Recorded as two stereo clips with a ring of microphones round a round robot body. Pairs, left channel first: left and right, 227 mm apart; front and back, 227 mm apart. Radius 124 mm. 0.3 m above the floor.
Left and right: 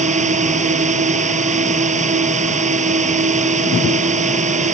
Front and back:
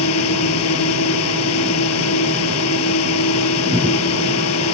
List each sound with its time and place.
0.0 s a drone: 30° right